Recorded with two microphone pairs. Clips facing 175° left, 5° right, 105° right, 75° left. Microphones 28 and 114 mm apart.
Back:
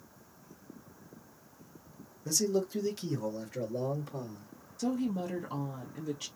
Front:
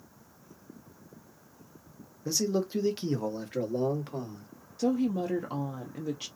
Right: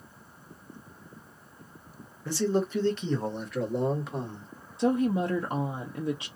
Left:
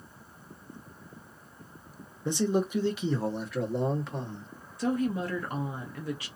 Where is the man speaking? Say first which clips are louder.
Front 1 dB, even; 35° left, 0.9 m; by 4.5 s 25° right, 1.7 m.